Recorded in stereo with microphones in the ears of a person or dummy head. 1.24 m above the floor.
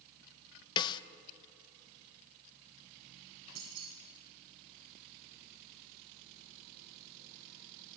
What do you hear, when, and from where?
0.8 s a snare drum: 25° left (ahead or behind), 0.9 m
3.5 s keys jangling: 75° right (ahead or behind), 7.5 m